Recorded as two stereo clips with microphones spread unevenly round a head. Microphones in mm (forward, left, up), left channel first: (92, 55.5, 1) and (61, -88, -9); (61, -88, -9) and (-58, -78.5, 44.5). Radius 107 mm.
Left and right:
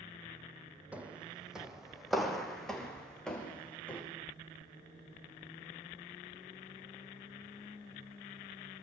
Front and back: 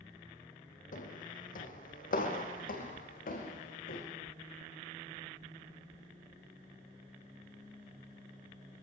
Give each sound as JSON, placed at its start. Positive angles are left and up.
{"t": 0.9, "sound": "footsteps", "azimuth_deg": -20, "distance_m": 4.0}